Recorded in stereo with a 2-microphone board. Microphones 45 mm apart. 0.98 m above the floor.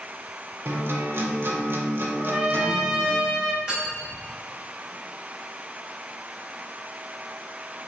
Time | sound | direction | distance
0.7 | a guitar | 55° right (ahead or behind) | 0.5 m
2.2 | a trumpet | 10° right (ahead or behind) | 0.5 m
3.7 | cutlery clinking | 25° right (ahead or behind) | 1.8 m